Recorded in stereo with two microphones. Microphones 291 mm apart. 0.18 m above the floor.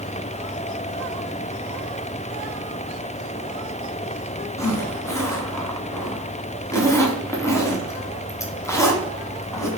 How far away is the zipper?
About 0.7 m.